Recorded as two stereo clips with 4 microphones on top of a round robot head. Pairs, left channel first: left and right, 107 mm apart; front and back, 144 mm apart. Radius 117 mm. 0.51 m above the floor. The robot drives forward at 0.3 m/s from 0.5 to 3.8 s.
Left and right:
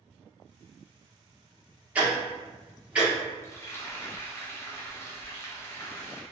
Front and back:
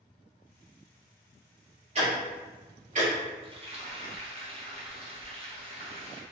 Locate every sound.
1.9 s ticking: 160° right, 1.2 m; by 3.1 s 165° right, 1.5 m
3.4 s frying: 145° left, 0.8 m; by 6.2 s 150° left, 0.9 m